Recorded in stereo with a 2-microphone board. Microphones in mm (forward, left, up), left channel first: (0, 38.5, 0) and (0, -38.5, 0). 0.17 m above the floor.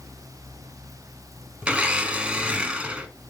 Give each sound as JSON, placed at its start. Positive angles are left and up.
{"t": 1.6, "sound": "a blender", "side_deg": -15, "distance_m": 1.3}